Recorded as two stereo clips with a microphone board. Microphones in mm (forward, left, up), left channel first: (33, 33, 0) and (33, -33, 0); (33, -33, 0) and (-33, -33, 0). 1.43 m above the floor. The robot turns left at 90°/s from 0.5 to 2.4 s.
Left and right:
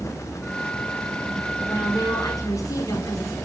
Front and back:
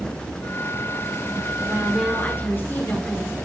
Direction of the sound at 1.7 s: 120° left.